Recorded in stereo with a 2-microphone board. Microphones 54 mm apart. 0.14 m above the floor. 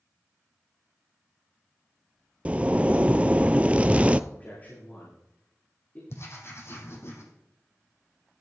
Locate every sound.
2.5 s a zipper: 25° right (ahead or behind), 0.5 m
4.3 s a man speaking: 35° left (ahead or behind), 9 m
6.1 s writing: 55° left (ahead or behind), 3.5 m